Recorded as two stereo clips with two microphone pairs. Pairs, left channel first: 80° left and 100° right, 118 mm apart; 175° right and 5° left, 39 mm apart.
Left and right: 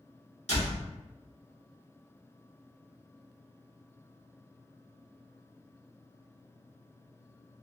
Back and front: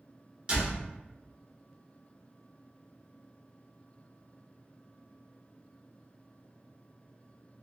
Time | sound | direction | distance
0.5 | a door slam | 70° left | 1.2 m